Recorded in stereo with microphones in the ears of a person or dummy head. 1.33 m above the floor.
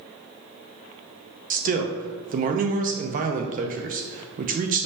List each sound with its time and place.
1.5 s a man speaking: 40° right (ahead or behind), 0.6 m